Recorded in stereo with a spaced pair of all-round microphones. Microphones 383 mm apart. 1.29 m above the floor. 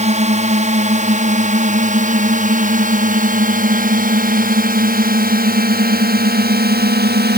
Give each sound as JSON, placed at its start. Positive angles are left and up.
{"t": 0.0, "sound": "a drone", "side_deg": -20}